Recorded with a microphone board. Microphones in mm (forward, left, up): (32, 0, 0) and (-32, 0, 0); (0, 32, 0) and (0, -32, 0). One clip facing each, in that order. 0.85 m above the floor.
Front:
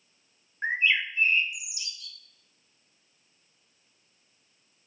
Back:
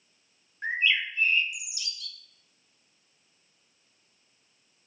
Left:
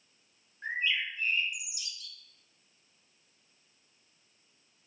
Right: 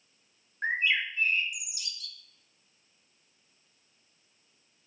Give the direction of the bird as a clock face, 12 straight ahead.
2 o'clock.